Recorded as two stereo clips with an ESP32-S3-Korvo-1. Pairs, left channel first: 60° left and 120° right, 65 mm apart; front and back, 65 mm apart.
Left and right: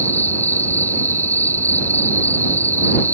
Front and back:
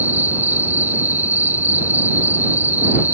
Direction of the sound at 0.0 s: 120° left.